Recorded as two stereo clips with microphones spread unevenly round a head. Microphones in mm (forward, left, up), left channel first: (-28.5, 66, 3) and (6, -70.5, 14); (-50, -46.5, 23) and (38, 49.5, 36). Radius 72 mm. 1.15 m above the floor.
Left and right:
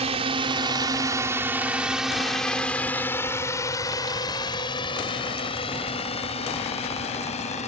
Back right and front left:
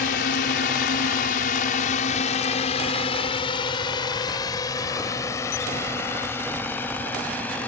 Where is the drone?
125° right; by 7.7 s 150° left.